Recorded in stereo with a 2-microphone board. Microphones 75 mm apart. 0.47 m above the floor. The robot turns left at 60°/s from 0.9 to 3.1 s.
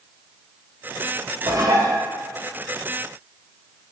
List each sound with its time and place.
1.5 s dishes clattering: 105° right, 0.9 m; by 2.0 s 135° right, 0.9 m